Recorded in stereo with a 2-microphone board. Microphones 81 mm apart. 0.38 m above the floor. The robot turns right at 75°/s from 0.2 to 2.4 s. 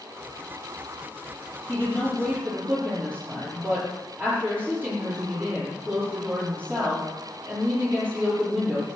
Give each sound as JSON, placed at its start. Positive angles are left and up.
{"t": 1.7, "sound": "a woman speaking", "azimuth_deg": 155, "distance_m": 7.0}